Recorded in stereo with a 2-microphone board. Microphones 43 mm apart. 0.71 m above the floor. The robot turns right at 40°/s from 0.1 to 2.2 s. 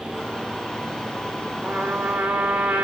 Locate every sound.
1.6 s a trumpet: 35° right (ahead or behind), 2.5 m; by 2.9 s 55° right (ahead or behind), 2.5 m